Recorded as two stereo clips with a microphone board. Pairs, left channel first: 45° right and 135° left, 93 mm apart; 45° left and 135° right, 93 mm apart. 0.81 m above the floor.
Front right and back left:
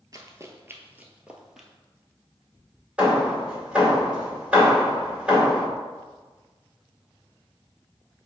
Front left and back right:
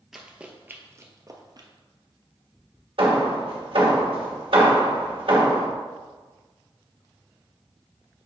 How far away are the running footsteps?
About 0.9 m.